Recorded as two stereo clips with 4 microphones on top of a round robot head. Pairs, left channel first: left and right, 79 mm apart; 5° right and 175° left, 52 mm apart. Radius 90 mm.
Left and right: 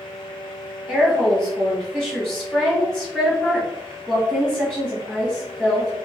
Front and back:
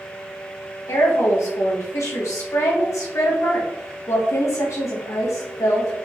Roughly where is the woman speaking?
Ahead.